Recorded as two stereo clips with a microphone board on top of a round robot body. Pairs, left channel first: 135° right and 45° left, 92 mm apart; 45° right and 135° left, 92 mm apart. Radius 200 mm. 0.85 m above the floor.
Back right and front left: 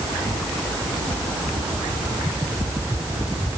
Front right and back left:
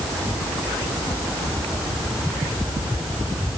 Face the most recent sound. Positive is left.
No sound to turn to.